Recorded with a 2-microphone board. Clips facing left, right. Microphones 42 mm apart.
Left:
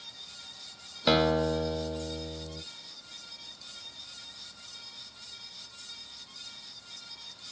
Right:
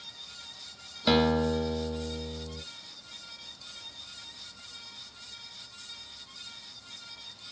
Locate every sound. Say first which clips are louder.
1.1 s a guitar: even; 5° left (ahead or behind), 0.8 m